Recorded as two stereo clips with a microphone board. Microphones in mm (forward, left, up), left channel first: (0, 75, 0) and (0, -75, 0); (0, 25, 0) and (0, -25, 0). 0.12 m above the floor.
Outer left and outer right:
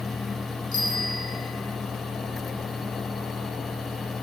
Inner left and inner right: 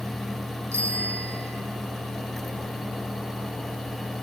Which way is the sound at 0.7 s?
70° right (ahead or behind).